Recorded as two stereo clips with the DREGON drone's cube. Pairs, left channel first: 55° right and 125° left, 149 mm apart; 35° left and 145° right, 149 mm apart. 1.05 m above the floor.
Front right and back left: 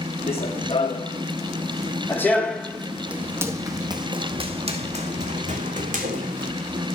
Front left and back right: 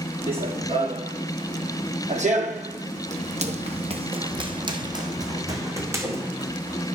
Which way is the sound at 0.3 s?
100° right.